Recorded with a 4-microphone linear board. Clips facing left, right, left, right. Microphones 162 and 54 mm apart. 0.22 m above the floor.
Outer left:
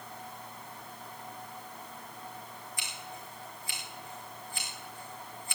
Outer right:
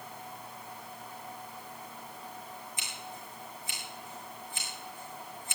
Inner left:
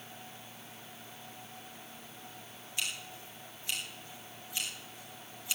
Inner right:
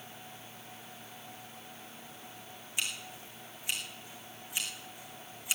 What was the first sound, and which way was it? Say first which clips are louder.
Scissors: even, inner right 1 dB; 20° right (ahead or behind).